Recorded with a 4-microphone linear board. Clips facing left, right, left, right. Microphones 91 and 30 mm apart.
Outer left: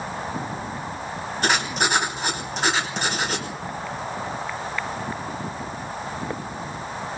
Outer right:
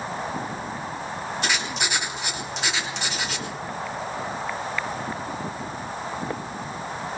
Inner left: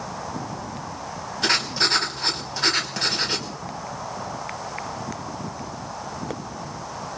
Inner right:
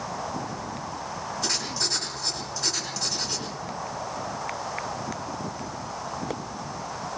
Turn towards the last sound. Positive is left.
turn(degrees=45)  # may be behind; listen again after turning